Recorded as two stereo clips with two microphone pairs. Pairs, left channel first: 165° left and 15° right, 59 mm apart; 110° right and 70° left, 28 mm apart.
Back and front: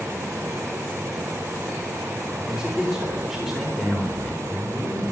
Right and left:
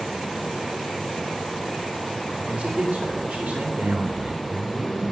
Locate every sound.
2.5 s a man speaking: 60° left, 3 m; by 5.1 s 85° left, 4 m